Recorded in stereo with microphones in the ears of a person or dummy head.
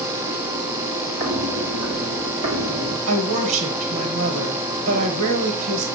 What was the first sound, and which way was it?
Footsteps, 40° right (ahead or behind).